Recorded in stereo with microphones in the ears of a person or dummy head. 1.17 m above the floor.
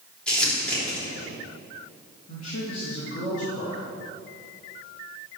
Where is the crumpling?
10° left (ahead or behind), 3 m.